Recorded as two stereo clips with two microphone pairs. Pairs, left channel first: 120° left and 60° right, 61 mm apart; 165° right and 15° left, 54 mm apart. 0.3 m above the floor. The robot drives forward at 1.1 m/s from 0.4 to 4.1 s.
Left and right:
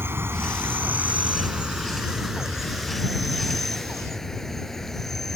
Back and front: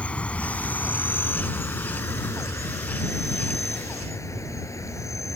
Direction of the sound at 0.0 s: 105° right.